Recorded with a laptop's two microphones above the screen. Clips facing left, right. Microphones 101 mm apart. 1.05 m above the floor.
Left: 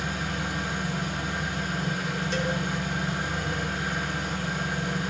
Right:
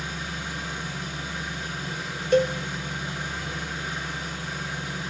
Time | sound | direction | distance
0.0 | an engine running | 65° left (ahead or behind) | 6.5 m
2.3 | a cowbell | 50° right (ahead or behind) | 1.7 m